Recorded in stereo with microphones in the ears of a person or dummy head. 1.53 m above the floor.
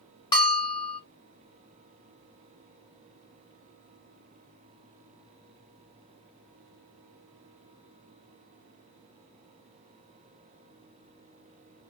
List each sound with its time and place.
0.3 s a bell: 20° left (ahead or behind), 0.8 m